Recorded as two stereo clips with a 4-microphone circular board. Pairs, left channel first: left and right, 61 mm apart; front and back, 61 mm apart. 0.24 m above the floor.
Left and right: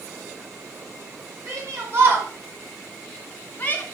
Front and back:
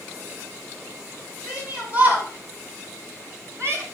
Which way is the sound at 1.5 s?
105° right.